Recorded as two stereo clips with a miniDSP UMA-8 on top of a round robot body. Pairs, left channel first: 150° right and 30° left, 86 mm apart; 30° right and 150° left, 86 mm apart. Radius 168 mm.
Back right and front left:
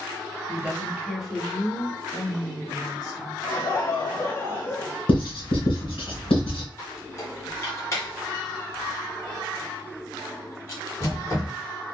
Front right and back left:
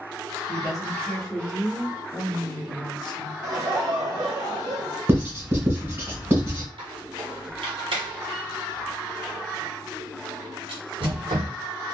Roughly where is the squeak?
Behind left.